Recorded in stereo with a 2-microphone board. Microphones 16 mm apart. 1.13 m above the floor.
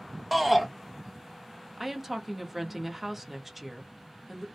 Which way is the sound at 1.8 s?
15° right (ahead or behind).